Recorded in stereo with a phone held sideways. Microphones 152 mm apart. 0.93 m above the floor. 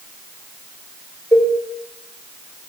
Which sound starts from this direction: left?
A cowbell, at 1.3 s.